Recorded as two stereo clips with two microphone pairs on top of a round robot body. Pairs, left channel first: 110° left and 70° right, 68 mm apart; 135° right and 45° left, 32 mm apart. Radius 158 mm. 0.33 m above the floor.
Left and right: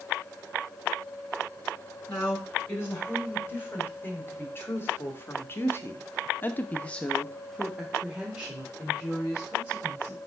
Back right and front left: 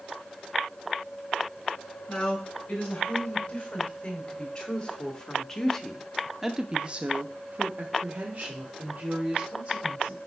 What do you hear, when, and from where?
2.1 s a woman speaking: 165° left, 4 m; by 10.2 s straight ahead, 3 m